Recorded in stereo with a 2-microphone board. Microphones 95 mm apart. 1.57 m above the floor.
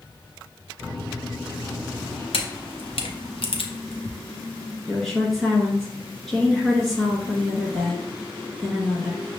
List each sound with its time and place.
0.8 s a microwave: 25° left (ahead or behind), 2.5 m
2.3 s a camera shutter: 70° left (ahead or behind), 0.6 m
4.9 s a woman speaking: 5° left (ahead or behind), 1.5 m